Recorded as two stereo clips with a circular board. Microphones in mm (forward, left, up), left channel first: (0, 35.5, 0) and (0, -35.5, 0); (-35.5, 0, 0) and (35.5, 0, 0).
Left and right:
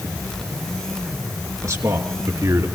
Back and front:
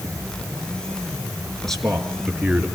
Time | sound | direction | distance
1.6 | a man speaking | 100° right | 2.5 m